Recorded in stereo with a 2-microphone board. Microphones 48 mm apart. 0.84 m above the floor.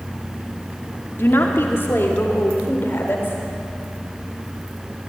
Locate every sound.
1.2 s a woman speaking: 50° left (ahead or behind), 2 m